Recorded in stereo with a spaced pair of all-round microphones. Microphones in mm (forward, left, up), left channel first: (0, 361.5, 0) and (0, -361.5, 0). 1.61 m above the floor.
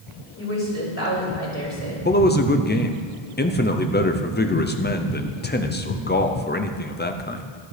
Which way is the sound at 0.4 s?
20° left (ahead or behind).